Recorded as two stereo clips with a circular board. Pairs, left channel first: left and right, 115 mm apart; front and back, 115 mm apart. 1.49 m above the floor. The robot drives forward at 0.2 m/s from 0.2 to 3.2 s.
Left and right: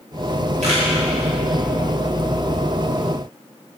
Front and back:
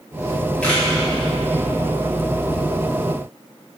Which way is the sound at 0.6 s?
80° right.